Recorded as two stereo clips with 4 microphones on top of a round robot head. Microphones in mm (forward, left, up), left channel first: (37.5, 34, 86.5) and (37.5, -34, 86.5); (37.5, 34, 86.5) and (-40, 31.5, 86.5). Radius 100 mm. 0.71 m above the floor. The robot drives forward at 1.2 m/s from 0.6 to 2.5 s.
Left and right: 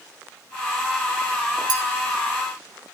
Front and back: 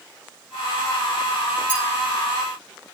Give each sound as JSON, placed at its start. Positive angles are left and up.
{"t": 1.7, "sound": "a clink", "azimuth_deg": -75, "distance_m": 1.7}